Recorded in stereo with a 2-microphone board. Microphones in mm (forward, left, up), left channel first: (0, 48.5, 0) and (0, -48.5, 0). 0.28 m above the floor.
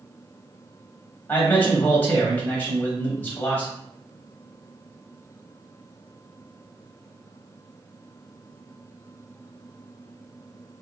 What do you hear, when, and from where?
1.3 s a man speaking: 20° left (ahead or behind), 1.5 m